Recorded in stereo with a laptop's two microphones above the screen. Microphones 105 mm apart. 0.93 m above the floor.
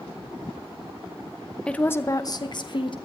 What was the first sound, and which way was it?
A woman speaking, 10° left (ahead or behind).